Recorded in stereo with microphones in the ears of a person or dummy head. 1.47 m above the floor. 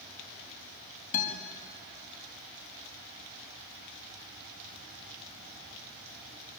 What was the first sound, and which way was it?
A guitar, 40° left (ahead or behind).